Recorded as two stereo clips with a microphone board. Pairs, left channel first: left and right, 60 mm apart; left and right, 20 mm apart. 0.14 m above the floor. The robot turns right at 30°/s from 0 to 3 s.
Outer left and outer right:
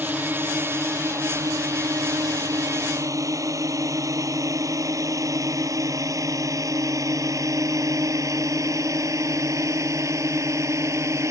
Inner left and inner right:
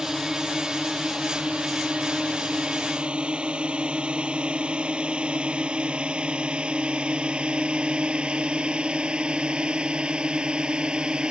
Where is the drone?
25° right (ahead or behind); by 11.3 s 55° right (ahead or behind).